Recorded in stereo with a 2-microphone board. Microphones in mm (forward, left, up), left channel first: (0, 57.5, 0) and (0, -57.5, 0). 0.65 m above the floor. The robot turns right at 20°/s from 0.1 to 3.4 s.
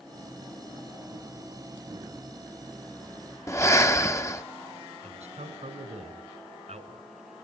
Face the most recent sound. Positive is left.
turn(degrees=-75)  # may be behind; listen again after turning